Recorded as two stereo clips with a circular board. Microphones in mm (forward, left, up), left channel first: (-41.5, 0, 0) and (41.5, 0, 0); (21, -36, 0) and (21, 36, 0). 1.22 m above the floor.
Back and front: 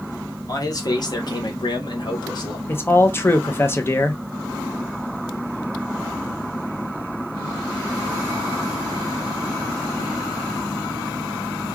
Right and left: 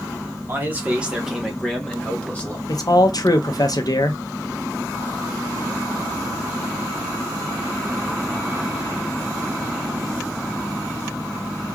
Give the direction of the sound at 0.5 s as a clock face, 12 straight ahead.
7 o'clock.